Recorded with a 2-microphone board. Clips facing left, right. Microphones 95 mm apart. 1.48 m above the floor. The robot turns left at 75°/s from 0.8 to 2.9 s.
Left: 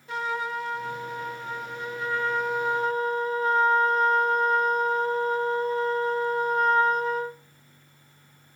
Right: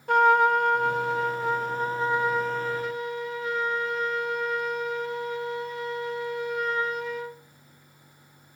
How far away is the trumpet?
About 0.6 m.